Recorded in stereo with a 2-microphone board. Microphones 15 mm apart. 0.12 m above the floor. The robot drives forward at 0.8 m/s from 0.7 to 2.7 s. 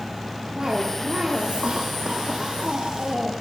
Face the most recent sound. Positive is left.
turn(degrees=-75)  # may be behind; listen again after turning